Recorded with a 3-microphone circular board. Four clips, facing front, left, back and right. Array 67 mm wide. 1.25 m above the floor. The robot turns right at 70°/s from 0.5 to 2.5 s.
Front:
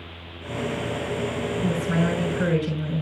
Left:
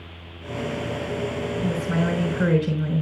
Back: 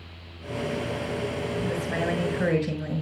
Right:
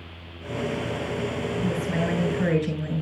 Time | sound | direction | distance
1.6 | a woman speaking | 15° left | 5.5 m